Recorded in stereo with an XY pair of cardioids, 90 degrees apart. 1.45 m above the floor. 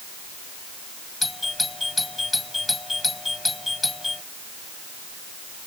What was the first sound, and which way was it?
A doorbell, 20° left.